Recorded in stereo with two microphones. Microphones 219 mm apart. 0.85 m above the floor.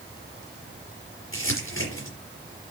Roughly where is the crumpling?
Left.